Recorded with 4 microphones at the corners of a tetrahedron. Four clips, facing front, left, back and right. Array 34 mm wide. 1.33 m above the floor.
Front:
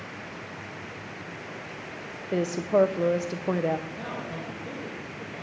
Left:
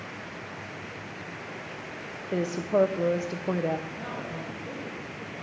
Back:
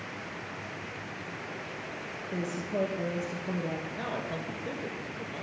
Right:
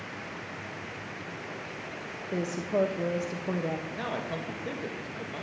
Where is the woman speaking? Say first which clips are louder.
Left 4 dB, front 10 dB; 25° left, 0.5 m.